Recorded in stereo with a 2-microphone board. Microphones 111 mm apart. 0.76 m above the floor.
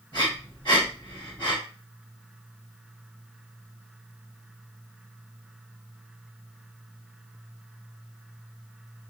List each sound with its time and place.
0.1 s breathing: 50° left (ahead or behind), 2.5 m